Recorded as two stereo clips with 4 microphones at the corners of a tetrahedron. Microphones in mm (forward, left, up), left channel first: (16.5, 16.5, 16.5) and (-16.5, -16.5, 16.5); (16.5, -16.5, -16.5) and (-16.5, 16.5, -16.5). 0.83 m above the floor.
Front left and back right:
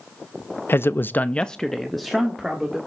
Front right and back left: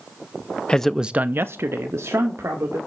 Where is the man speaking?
20° left, 0.6 m; by 2.8 s 145° left, 1.9 m.